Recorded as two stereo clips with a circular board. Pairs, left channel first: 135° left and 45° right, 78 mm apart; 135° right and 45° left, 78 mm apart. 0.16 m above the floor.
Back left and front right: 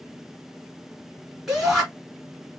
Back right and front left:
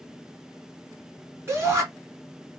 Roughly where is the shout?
Ahead left.